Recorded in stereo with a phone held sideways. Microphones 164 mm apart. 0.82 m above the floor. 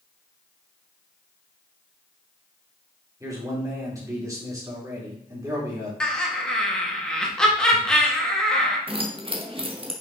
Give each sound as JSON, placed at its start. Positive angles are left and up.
{"t": 3.2, "sound": "a man speaking", "side_deg": -20, "distance_m": 2.5}
{"t": 6.0, "sound": "laughter", "side_deg": 5, "distance_m": 1.4}
{"t": 8.9, "sound": "keys jangling", "side_deg": -35, "distance_m": 1.1}